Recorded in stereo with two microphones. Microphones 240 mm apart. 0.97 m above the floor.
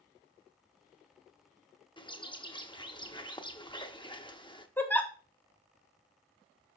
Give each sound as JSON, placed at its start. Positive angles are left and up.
{"t": 2.0, "sound": "a bird", "side_deg": 20, "distance_m": 0.6}
{"t": 4.8, "sound": "a giggle", "side_deg": 10, "distance_m": 0.8}